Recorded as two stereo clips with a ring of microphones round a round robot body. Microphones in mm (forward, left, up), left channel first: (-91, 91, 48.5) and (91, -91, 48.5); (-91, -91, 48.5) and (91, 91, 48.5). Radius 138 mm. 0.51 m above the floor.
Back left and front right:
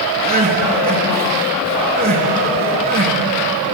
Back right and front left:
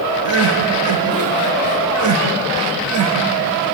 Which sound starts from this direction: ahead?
Crying, at 0.2 s.